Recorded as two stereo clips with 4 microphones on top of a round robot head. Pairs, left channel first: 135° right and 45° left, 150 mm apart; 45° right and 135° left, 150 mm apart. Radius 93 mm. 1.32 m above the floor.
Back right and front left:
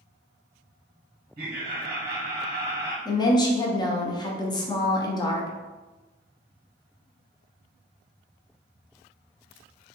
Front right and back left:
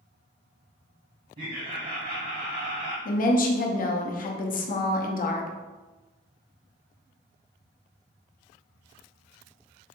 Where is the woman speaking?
70° right, 0.6 m.